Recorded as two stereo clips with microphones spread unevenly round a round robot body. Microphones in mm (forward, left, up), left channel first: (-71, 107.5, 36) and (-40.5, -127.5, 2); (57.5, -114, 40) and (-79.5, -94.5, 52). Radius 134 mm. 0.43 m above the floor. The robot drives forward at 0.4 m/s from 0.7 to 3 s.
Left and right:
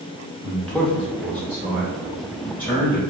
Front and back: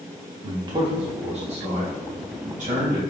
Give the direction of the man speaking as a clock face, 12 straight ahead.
5 o'clock.